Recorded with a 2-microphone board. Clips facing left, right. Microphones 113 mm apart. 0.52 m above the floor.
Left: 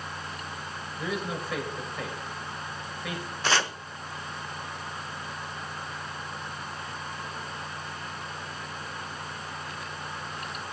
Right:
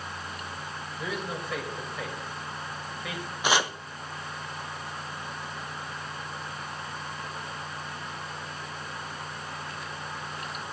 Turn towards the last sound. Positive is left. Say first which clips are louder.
# right 1 dB
turn(degrees=-15)  # may be behind; listen again after turning